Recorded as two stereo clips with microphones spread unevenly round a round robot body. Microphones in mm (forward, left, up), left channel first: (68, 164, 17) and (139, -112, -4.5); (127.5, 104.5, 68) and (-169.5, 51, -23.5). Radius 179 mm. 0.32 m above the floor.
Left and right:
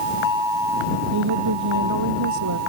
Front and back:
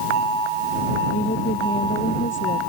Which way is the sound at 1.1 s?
60° right.